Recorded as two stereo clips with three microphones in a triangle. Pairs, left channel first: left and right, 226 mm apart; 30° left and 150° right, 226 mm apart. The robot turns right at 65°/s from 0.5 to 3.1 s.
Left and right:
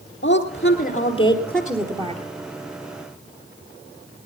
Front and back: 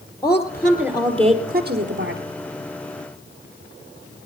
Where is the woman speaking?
105° left, 2 m; by 2.2 s 145° right, 2 m.